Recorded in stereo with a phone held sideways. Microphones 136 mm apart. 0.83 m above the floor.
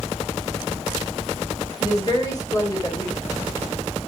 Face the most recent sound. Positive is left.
turn(degrees=30)  # may be behind; listen again after turning